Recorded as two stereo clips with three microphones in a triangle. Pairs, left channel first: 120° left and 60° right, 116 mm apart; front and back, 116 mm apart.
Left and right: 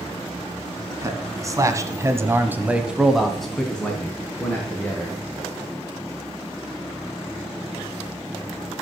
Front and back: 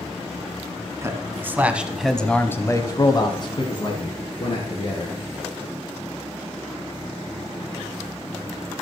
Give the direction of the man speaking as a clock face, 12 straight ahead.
4 o'clock.